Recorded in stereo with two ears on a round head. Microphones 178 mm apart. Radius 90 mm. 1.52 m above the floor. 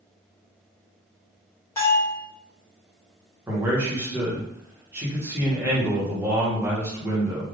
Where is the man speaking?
15° right (ahead or behind), 1.3 m.